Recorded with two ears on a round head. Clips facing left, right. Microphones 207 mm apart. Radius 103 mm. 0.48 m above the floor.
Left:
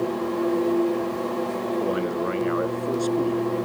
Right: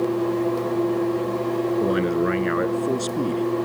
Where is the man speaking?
25° right (ahead or behind).